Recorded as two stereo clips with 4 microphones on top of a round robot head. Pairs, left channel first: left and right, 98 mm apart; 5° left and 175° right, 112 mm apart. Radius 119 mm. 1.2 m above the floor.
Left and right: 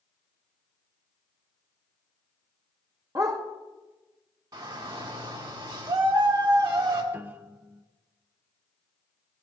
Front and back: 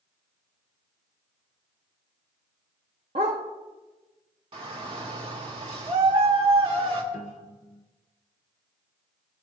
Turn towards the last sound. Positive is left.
turn(degrees=-20)